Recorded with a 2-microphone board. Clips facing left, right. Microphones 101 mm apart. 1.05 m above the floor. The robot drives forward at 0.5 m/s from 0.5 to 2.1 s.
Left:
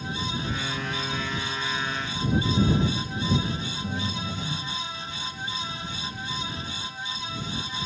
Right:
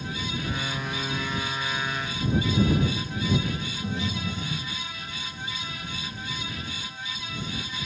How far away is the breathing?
About 9.5 m.